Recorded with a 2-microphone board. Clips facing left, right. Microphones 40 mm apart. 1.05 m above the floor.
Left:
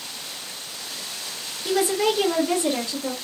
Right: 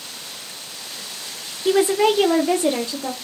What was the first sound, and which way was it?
A woman speaking, 30° right (ahead or behind).